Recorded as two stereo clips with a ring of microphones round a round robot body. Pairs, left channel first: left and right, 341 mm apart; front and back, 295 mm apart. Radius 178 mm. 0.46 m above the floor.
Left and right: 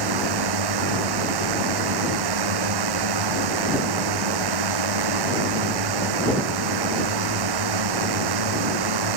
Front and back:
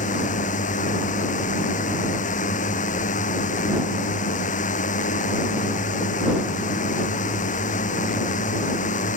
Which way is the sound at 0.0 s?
70° right.